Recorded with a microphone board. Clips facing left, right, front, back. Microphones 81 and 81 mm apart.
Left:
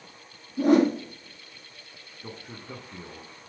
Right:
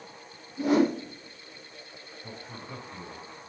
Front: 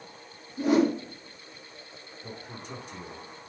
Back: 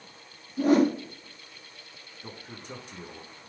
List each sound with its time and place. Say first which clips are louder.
0.6 s a whoosh: left 4 dB, back 2 dB; 130° left, 4 m
2.2 s a man speaking: left 2 dB, front 1 dB; 125° left, 6.5 m